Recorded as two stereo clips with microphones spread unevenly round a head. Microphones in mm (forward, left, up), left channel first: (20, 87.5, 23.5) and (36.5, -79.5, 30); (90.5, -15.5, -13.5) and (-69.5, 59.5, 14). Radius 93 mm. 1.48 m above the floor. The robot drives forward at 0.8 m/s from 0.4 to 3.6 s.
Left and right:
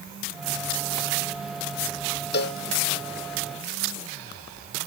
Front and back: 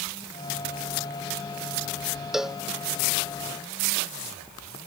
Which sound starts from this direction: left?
A cowbell, at 2.3 s.